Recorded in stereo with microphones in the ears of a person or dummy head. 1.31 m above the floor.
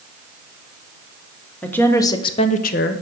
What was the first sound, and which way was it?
A woman speaking, 5° left (ahead or behind).